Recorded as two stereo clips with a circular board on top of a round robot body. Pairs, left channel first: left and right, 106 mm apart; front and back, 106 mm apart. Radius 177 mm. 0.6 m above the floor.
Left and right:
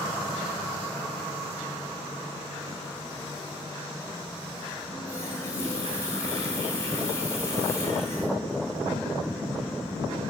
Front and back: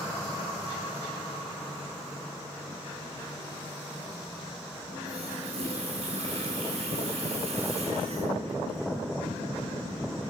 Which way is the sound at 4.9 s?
155° left.